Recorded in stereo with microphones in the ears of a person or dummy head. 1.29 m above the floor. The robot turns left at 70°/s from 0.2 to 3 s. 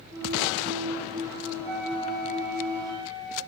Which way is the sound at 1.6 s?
110° right.